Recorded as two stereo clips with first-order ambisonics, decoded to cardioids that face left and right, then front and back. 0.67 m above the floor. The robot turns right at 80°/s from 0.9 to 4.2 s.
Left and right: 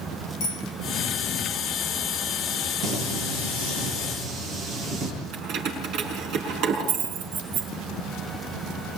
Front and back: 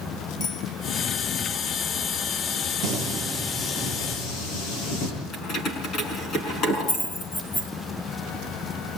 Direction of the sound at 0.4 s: 55° left.